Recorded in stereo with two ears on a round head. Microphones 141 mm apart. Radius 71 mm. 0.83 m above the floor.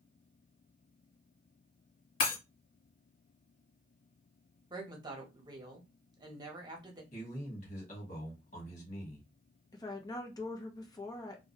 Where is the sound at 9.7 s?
25° left (ahead or behind), 0.7 m.